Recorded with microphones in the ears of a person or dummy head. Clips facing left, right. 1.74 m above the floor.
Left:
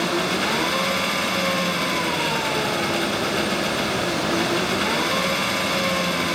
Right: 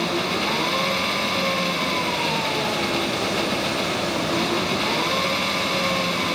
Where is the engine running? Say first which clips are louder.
Left 1 dB; 5° left (ahead or behind).